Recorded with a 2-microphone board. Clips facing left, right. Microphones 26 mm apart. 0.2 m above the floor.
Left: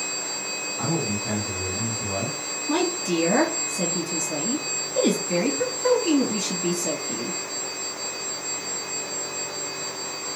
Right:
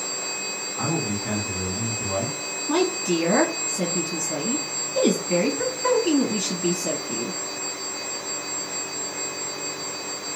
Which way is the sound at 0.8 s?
25° right (ahead or behind).